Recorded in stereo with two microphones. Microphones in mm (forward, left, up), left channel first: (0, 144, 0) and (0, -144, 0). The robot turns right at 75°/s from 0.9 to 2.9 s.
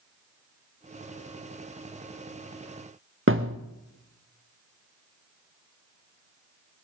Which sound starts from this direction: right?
A thud, at 3.3 s.